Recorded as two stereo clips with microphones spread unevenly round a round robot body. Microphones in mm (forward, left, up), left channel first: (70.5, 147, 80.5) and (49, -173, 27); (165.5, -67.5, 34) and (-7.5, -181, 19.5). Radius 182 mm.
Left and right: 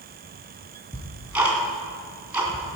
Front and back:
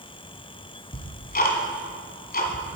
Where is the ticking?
10° right, 2.5 m.